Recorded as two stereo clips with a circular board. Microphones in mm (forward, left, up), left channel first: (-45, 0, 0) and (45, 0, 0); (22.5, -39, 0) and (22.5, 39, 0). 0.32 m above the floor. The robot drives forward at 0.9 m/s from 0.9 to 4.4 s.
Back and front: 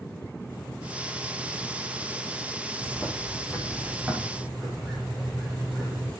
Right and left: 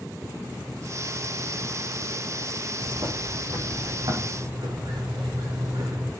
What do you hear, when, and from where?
2.8 s a bird: 75° left, 7 m; by 6.1 s 85° left, 6.5 m